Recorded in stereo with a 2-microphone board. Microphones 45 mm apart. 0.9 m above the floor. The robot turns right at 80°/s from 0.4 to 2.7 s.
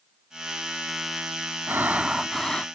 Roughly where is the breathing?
Ahead right.